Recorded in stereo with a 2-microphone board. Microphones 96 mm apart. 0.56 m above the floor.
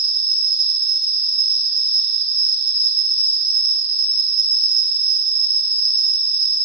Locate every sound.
0.0 s an insect: 10° left (ahead or behind), 0.7 m